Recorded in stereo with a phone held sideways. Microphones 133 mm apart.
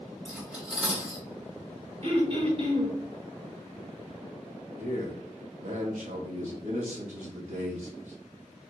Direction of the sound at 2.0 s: 50° right (ahead or behind).